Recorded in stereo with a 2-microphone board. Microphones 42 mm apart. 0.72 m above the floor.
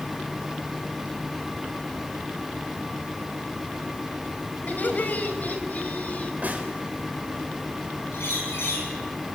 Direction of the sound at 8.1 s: 80° left.